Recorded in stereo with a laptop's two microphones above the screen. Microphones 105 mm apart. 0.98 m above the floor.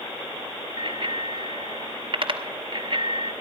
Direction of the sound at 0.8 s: 55° right (ahead or behind).